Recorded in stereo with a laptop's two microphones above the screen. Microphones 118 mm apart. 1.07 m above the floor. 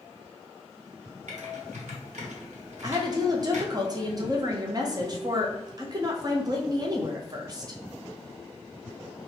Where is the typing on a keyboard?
85° right, 0.9 m.